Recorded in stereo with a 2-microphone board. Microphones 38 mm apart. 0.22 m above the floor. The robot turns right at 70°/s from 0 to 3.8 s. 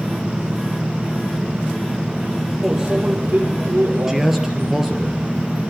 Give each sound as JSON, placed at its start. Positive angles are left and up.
{"t": 2.6, "sound": "a microwave", "azimuth_deg": -175, "distance_m": 4.5}
{"t": 4.1, "sound": "a man speaking", "side_deg": -10, "distance_m": 3.5}